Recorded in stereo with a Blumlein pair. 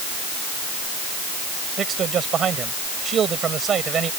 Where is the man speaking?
25° right.